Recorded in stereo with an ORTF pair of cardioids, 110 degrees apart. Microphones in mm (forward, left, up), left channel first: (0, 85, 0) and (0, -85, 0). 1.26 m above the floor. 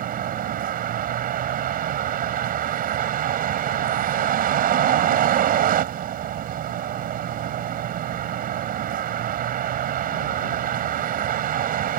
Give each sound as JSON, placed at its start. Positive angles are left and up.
{"t": 0.0, "sound": "a vehicle", "azimuth_deg": -60}